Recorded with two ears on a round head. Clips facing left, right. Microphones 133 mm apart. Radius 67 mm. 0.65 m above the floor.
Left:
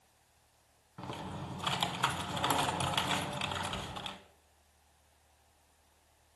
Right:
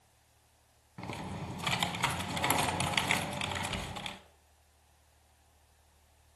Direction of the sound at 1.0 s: 15° right (ahead or behind).